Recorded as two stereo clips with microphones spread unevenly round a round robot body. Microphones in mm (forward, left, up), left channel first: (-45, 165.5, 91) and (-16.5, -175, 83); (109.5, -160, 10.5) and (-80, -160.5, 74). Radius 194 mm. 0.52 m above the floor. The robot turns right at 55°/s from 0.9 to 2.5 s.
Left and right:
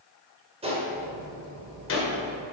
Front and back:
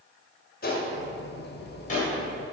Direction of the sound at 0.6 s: 15° right.